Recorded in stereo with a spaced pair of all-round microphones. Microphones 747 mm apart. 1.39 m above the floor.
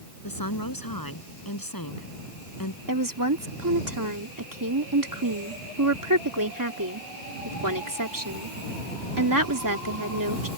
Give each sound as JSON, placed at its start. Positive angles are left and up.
{"t": 0.2, "sound": "a woman speaking", "side_deg": 25}
{"t": 2.9, "sound": "a woman speaking", "side_deg": -25}